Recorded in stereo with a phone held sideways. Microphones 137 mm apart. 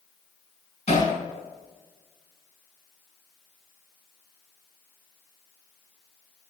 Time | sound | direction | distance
0.9 | hammering | 55° left (ahead or behind) | 7.5 m